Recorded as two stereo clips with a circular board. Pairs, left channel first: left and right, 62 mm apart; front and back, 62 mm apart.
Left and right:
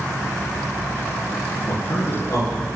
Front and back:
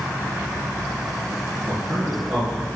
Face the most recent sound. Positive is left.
turn(degrees=110)